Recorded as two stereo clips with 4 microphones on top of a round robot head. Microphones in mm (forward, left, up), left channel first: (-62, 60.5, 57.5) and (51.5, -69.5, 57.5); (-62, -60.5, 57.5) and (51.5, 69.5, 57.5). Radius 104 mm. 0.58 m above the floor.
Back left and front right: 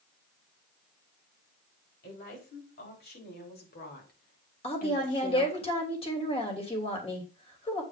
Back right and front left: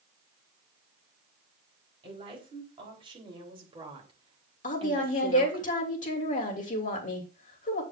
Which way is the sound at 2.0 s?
110° left.